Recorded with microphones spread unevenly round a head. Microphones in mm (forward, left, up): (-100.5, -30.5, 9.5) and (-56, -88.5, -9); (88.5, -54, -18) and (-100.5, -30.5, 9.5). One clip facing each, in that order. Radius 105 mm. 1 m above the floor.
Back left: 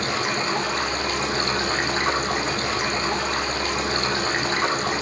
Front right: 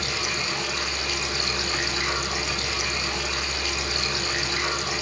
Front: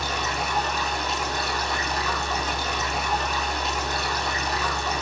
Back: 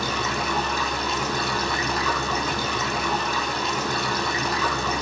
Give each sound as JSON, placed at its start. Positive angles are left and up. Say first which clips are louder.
{"t": 0.0, "sound": "running water", "louder": "back left 5 dB, back 2 dB", "azimuth_deg": 170, "distance_m": 6.0}